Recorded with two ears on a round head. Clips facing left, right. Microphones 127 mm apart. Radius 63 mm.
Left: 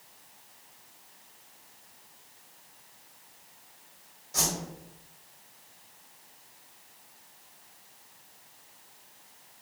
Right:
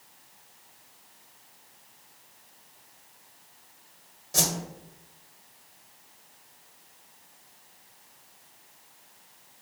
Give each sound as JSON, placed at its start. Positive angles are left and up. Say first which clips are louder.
{"t": 4.3, "sound": "a whoosh", "louder": "right 3 dB", "side_deg": -35, "distance_m": 1.7}